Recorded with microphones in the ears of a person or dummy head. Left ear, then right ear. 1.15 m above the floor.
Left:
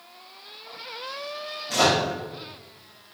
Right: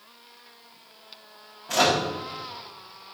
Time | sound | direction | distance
1.7 | a microwave | 35° right (ahead or behind) | 0.8 m